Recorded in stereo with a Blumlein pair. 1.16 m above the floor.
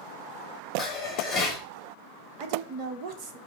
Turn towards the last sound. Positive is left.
turn(degrees=-40)